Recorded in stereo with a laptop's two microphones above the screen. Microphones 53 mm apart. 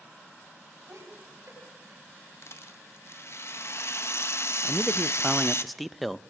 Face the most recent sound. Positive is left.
turn(degrees=0)  # may be behind; listen again after turning